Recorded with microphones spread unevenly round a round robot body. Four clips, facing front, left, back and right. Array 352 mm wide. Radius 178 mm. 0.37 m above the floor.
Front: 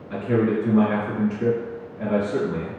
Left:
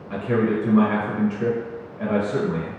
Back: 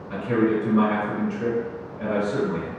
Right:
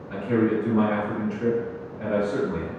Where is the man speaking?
90° left, 1.9 m.